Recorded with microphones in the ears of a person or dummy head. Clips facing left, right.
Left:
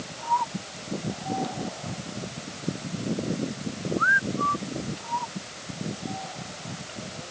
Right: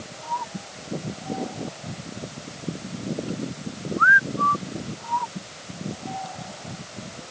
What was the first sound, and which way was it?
Only background noise.